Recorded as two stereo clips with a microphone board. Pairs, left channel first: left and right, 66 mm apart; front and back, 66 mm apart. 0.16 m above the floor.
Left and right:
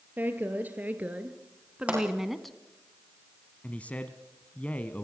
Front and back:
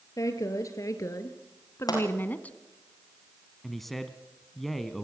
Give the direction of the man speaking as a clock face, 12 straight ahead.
9 o'clock.